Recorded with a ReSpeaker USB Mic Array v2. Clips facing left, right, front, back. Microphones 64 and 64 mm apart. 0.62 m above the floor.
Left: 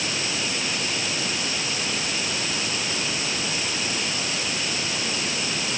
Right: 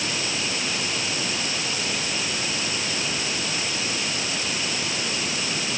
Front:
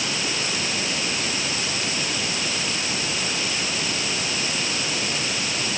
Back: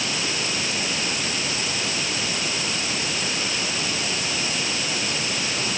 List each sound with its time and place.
Only background noise.